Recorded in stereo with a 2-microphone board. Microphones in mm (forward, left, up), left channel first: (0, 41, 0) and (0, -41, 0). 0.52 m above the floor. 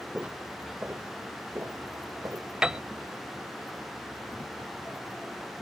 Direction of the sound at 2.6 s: 10° right (ahead or behind).